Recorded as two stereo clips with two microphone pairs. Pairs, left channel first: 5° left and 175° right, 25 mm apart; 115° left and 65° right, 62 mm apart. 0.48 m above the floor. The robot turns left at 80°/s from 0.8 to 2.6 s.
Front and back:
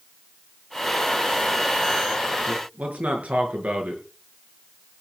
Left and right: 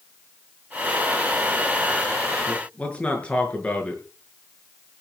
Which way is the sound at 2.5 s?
160° right.